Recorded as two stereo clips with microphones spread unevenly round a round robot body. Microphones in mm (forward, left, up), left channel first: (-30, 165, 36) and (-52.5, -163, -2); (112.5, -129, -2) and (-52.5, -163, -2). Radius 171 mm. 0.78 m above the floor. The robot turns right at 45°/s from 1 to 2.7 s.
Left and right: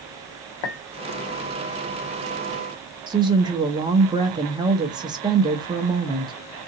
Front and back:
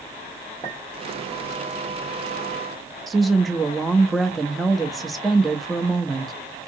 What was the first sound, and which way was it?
A clink, 90° left.